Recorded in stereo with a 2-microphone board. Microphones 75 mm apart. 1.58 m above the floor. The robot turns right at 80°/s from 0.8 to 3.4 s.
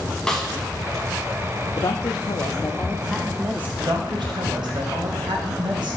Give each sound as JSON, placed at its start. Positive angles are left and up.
{"t": 0.3, "sound": "a snare drum", "side_deg": 10, "distance_m": 1.1}
{"t": 1.8, "sound": "a woman speaking", "azimuth_deg": 70, "distance_m": 0.5}
{"t": 3.8, "sound": "a woman speaking", "side_deg": -80, "distance_m": 1.8}